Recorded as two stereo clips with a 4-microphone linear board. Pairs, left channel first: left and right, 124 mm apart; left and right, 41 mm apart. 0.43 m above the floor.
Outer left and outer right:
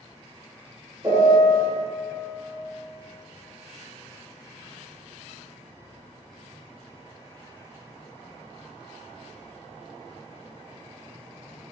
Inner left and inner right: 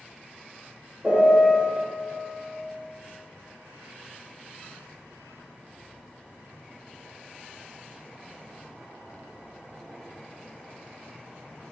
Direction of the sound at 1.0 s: 30° right (ahead or behind).